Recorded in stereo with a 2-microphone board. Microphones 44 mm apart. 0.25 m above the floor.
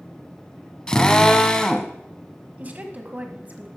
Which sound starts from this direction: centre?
A drill, at 0.9 s.